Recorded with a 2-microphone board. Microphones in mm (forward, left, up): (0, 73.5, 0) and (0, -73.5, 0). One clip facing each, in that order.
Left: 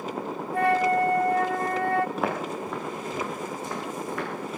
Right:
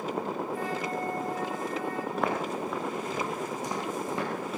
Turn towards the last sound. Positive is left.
turn(degrees=-25)  # may be behind; listen again after turning